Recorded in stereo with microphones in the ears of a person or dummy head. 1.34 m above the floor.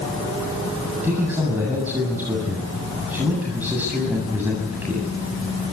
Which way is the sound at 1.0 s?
10° right (ahead or behind).